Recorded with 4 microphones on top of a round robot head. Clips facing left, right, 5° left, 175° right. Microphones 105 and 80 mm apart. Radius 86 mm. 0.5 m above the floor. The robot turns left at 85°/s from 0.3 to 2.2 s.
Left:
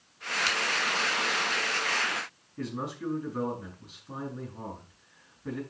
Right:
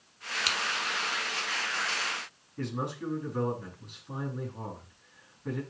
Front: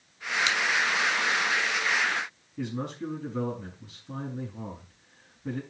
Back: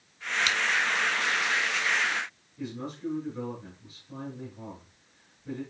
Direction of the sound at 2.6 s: Straight ahead.